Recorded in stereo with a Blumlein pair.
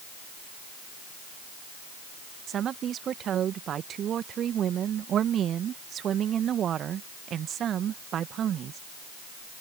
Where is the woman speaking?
25° right.